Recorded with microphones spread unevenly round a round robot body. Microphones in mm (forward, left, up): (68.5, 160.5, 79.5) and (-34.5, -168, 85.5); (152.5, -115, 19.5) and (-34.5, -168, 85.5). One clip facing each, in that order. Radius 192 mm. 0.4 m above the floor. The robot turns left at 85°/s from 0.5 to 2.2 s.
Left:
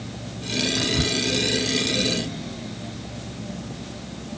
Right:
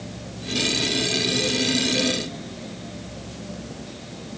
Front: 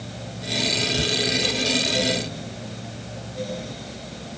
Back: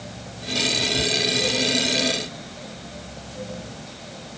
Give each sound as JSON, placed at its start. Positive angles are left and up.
{"t": 0.8, "sound": "whispering", "azimuth_deg": 110}